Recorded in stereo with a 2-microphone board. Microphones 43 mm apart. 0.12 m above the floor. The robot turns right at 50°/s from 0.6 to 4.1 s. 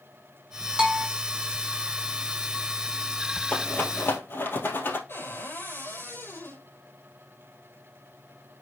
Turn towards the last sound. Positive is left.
turn(degrees=60)  # may be behind; listen again after turning